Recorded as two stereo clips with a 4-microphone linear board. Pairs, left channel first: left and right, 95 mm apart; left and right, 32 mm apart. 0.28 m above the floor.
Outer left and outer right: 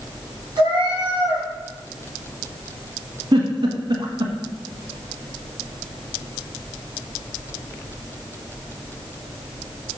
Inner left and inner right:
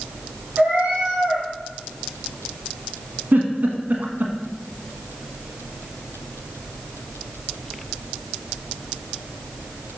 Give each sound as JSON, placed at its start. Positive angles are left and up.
{"t": 0.6, "sound": "a cat meowing", "side_deg": -50, "distance_m": 3.0}
{"t": 3.3, "sound": "a giggle", "side_deg": -55, "distance_m": 1.2}